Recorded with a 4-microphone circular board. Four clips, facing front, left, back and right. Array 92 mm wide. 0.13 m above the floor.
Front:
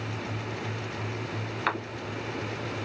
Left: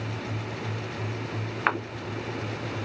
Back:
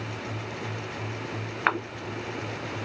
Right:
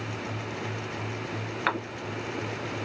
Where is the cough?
150° left, 1.1 m.